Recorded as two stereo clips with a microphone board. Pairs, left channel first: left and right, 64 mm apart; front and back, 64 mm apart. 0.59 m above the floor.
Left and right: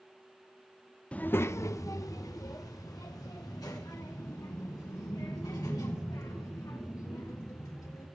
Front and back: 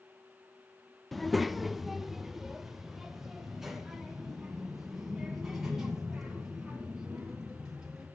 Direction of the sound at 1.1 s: 80° left.